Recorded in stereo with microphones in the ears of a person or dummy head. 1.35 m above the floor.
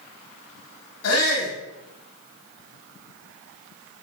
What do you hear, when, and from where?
1.0 s a shout: 85° left, 2.0 m